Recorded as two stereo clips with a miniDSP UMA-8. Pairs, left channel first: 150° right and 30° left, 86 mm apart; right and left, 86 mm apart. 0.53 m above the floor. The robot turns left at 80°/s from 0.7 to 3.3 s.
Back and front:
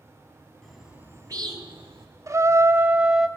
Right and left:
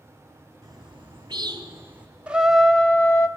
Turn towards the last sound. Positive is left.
turn(degrees=-60)